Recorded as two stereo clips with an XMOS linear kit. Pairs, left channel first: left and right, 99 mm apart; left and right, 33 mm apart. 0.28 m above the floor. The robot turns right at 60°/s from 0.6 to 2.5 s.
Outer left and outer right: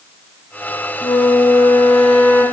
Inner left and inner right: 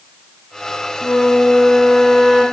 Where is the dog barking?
I don't hear a dog barking.